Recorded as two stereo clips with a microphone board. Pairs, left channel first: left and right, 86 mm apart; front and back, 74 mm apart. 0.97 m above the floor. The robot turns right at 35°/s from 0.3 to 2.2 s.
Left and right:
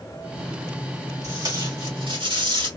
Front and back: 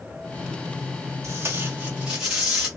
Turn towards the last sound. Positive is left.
turn(degrees=-100)